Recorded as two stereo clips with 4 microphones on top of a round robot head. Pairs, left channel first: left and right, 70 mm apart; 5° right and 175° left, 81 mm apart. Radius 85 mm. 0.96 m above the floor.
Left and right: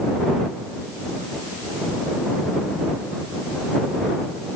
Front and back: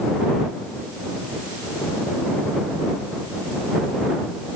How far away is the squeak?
No squeak in this recording.